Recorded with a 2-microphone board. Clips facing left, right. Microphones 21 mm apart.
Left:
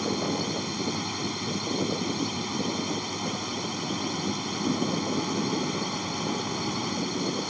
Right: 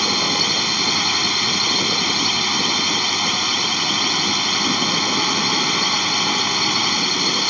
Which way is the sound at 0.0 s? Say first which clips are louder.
Right 10 dB; 60° right (ahead or behind).